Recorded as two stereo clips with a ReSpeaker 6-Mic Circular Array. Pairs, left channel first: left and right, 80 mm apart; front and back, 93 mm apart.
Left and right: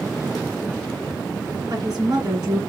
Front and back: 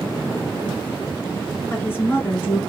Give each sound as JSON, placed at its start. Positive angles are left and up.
{"t": 1.7, "sound": "a woman speaking", "azimuth_deg": -60, "distance_m": 3.0}